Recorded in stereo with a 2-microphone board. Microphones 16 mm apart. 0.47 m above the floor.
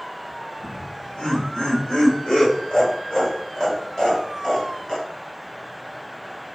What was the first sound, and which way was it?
Laughter, 75° left (ahead or behind).